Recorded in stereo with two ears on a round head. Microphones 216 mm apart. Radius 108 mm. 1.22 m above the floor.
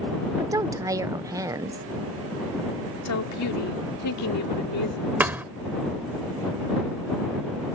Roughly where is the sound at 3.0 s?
Left.